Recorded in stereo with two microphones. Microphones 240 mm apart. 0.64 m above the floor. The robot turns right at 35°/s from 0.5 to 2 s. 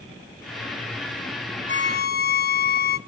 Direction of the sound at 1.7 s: 50° left (ahead or behind).